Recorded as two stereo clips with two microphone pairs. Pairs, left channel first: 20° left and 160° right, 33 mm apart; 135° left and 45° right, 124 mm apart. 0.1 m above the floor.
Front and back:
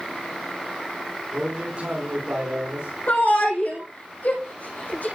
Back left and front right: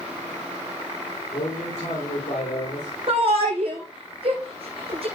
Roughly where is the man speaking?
Behind left.